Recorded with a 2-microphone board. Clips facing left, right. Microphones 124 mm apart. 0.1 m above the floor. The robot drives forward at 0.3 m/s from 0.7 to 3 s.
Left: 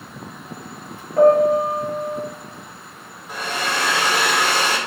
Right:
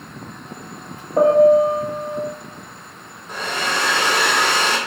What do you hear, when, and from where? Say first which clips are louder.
1.2 s a piano: right 2 dB; 35° right (ahead or behind), 0.7 m; by 2.2 s 25° right (ahead or behind), 0.9 m
3.3 s a hair dryer: right 1 dB; 5° left (ahead or behind), 1.5 m